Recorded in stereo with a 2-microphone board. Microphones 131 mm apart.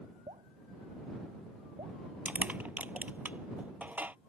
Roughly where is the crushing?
Centre.